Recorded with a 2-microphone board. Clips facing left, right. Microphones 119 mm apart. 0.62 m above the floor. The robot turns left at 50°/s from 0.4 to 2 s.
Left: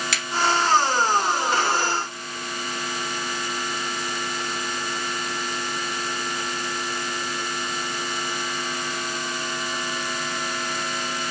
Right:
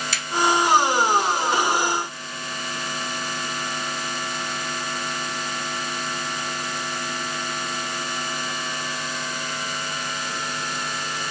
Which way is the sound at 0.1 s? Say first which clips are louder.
Left 2 dB; 75° left (ahead or behind).